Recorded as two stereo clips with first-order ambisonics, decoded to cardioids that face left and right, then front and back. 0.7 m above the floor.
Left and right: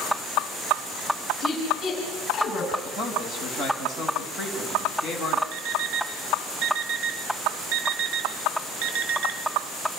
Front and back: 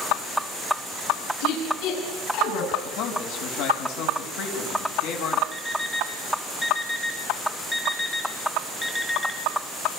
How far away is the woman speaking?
About 8.5 m.